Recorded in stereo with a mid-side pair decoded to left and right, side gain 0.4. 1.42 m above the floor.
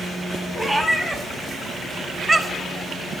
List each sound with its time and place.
0.6 s a cat meowing: straight ahead, 2.5 m; by 2.8 s 15° right, 1.4 m